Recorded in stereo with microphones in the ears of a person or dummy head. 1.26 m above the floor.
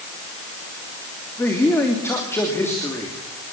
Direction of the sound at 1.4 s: 10° left (ahead or behind).